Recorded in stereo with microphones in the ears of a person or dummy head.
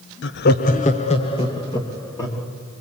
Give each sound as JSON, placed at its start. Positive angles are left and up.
{"t": 0.2, "sound": "laughter", "side_deg": 60, "distance_m": 0.9}